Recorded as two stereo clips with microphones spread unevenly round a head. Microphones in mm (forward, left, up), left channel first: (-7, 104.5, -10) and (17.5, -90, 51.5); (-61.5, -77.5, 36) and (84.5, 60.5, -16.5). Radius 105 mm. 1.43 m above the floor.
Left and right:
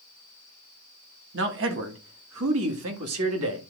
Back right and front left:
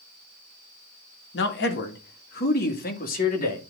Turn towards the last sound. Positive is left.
turn(degrees=-90)